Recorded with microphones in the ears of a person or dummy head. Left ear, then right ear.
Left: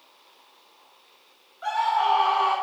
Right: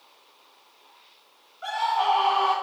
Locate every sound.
1.6 s a scream: 5° left (ahead or behind), 7 m